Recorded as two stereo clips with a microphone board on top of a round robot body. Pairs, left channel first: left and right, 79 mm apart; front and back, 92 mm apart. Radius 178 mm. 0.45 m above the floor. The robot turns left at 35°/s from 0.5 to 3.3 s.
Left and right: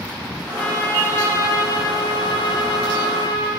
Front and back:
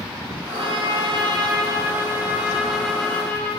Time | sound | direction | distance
0.5 | a trumpet | 170° left | 1.3 m